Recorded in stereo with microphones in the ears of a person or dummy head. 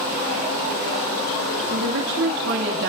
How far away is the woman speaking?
About 2.5 m.